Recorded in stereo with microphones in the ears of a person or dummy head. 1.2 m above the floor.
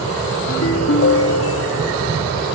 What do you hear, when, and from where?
0.5 s a ringtone: 65° left (ahead or behind), 1.7 m